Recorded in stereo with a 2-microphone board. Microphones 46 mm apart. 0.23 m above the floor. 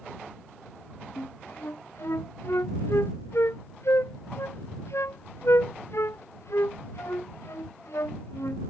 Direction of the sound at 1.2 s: 65° left (ahead or behind).